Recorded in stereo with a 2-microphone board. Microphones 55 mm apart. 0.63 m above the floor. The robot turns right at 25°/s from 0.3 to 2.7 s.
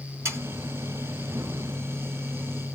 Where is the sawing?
50° right (ahead or behind), 2 m.